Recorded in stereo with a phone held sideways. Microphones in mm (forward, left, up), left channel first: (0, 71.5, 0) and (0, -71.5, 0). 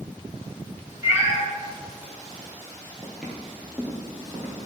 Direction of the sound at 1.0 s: 20° right (ahead or behind).